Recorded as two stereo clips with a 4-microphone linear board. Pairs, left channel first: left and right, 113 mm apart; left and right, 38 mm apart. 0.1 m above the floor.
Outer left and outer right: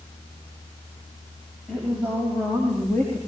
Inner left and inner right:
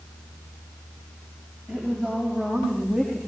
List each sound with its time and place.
1.7 s a woman speaking: 5° left (ahead or behind), 9 m; by 3.2 s 10° left (ahead or behind), 7.5 m